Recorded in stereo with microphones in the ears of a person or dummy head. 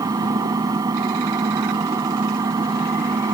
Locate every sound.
0.0 s an engine running: 20° right (ahead or behind)